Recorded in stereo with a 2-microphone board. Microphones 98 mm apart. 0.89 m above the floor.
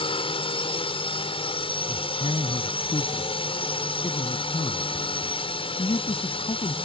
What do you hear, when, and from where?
0.0 s a drone: 70° left (ahead or behind)
1.9 s a man speaking: 75° left (ahead or behind)